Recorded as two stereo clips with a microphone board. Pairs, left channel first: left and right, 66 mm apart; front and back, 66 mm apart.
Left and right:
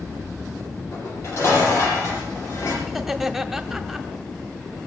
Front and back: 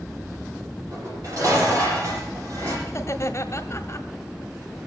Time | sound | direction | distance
0.9 | dishes clattering | 140° left | 8 m
2.9 | laughter | 5° right | 1.7 m